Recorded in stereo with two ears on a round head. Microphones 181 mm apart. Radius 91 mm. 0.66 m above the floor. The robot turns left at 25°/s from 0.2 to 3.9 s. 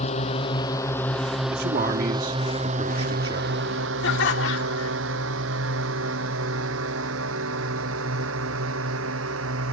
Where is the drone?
30° left (ahead or behind); by 9.7 s 75° right (ahead or behind).